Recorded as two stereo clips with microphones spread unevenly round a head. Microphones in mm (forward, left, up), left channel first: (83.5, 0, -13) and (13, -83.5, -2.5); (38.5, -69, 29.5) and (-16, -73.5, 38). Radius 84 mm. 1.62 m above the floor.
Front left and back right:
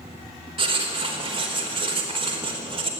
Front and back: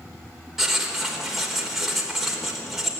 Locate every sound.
0.6 s writing: 90° right, 4 m